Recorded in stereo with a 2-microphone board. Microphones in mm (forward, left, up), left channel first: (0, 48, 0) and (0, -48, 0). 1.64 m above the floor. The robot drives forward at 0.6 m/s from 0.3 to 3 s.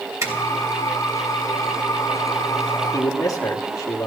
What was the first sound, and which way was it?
A zipper, 30° right (ahead or behind).